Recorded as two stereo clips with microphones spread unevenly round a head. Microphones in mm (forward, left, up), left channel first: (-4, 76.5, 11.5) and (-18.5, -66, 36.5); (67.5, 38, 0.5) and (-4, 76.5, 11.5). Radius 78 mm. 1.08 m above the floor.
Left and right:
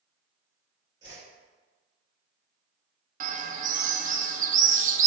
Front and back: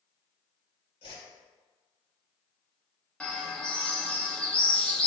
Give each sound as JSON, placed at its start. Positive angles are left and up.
{"t": 1.0, "sound": "a whoosh", "azimuth_deg": -30, "distance_m": 3.0}
{"t": 3.2, "sound": "a bird", "azimuth_deg": -95, "distance_m": 0.8}